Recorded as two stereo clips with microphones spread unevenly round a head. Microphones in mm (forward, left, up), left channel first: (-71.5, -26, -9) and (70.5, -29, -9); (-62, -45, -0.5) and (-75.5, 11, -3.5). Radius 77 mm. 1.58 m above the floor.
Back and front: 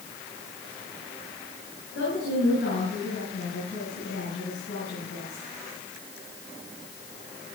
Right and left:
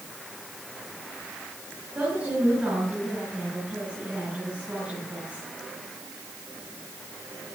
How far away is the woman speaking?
About 9.5 m.